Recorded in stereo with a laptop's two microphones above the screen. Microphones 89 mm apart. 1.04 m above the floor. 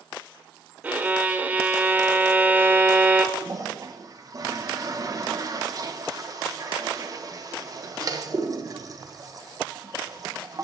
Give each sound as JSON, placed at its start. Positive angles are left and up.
{"t": 0.8, "sound": "a violin", "side_deg": -15, "distance_m": 0.8}
{"t": 3.4, "sound": "a toilet flushing", "side_deg": -40, "distance_m": 1.0}